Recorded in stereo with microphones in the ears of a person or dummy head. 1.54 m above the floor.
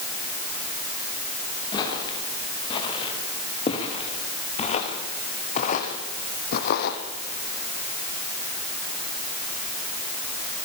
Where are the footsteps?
30° left (ahead or behind), 9.5 m; by 7.0 s 65° left (ahead or behind), 4 m.